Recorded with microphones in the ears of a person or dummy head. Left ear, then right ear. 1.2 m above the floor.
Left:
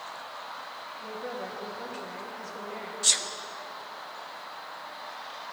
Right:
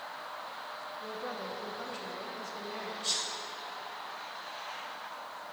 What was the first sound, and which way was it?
A woman speaking, 5° right (ahead or behind).